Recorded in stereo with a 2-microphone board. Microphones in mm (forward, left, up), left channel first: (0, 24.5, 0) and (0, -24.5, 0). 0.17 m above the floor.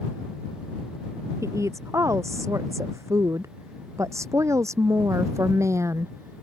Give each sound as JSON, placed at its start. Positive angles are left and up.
{"t": 1.4, "sound": "a woman speaking", "side_deg": -85}